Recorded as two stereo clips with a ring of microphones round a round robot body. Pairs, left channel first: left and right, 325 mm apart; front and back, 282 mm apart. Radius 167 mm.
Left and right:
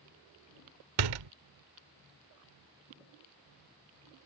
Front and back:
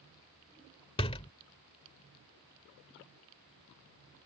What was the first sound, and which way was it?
A door slam, 75° right.